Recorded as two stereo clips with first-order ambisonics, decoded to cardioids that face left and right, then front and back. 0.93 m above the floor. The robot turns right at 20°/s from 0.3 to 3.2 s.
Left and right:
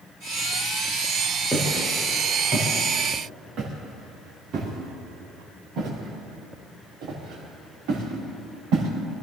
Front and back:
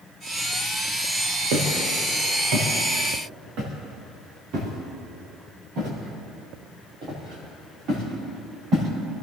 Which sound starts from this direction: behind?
Footsteps, at 1.5 s.